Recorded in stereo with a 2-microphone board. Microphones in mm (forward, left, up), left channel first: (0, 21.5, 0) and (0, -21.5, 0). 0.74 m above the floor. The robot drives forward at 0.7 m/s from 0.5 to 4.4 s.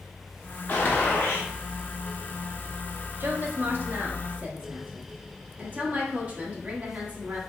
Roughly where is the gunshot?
Left.